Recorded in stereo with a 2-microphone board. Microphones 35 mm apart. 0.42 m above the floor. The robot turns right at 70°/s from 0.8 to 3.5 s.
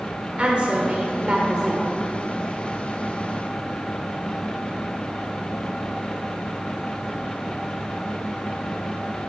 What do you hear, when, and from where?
0.4 s a woman speaking: 100° right, 1.5 m; by 1.9 s 25° right, 1.5 m